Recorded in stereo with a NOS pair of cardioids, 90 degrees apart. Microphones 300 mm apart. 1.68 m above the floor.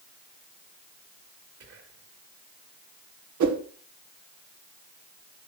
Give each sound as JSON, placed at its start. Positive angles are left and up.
{"t": 1.6, "sound": "whispering", "azimuth_deg": -55, "distance_m": 3.0}
{"t": 3.4, "sound": "a whoosh", "azimuth_deg": -65, "distance_m": 1.8}